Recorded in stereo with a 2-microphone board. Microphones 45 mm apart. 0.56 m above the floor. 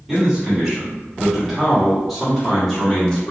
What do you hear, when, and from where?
0.1 s a man speaking: 15° right (ahead or behind), 1.3 m; by 3.3 s 10° left (ahead or behind), 1.6 m